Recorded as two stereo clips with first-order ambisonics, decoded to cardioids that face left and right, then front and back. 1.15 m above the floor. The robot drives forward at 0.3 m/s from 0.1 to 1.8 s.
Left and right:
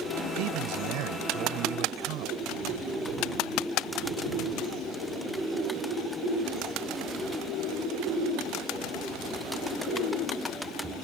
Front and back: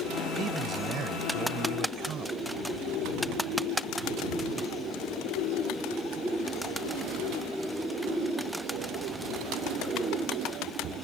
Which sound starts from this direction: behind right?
A man speaking, at 0.3 s.